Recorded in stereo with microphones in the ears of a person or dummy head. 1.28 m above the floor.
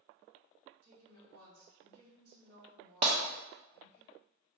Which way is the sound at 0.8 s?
80° right.